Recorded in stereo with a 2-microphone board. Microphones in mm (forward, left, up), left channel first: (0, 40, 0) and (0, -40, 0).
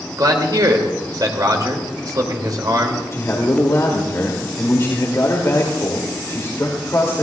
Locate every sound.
0.2 s a man speaking: 55° right (ahead or behind), 2.5 m
3.1 s a man speaking: 40° left (ahead or behind), 2.5 m